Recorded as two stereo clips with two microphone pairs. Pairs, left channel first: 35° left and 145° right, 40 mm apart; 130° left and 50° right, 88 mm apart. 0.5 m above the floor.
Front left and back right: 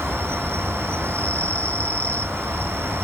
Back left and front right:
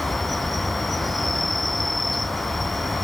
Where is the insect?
140° right.